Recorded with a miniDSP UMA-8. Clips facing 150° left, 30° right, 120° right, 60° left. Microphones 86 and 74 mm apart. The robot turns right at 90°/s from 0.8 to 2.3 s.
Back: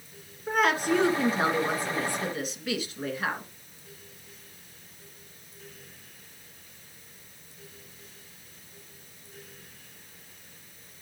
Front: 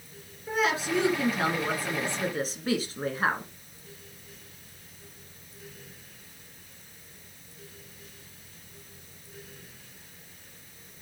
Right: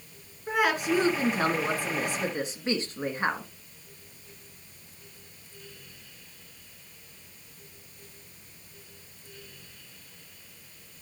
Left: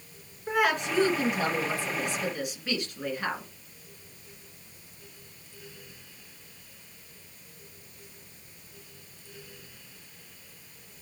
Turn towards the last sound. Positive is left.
turn(degrees=-70)